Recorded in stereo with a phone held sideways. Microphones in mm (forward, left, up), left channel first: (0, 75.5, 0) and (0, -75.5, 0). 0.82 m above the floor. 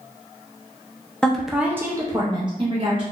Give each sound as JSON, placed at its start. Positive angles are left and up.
{"t": 1.2, "sound": "a woman speaking", "side_deg": 5, "distance_m": 0.5}